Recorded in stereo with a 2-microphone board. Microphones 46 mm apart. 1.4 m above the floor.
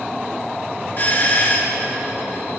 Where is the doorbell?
45° left (ahead or behind), 1.4 m.